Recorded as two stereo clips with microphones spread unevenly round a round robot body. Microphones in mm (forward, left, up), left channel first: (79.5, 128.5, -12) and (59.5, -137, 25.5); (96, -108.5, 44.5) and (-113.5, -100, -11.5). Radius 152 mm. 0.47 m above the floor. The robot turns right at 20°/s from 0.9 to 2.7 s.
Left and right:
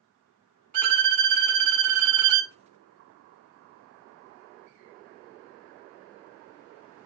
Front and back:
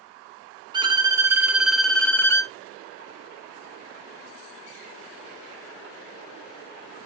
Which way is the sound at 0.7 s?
115° right.